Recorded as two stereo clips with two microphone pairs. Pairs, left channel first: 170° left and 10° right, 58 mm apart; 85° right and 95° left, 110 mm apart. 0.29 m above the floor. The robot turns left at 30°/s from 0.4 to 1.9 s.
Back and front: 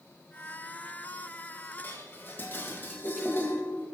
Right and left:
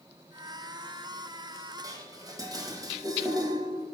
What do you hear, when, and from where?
1.8 s dishes clattering: 135° left, 1.0 m